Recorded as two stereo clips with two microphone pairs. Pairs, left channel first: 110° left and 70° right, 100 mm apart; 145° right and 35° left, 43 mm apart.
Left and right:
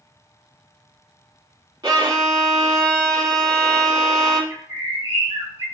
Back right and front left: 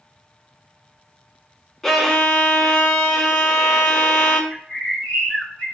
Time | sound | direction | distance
1.8 | a violin | 60° right | 0.5 m
4.5 | a bird | 80° right | 1.2 m